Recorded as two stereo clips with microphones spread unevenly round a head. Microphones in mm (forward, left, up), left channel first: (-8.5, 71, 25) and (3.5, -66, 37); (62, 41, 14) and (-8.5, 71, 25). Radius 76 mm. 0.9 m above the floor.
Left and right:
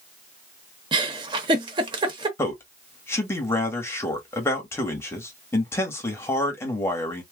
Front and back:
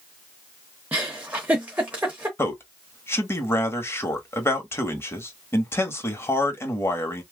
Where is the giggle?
130° right, 0.9 m.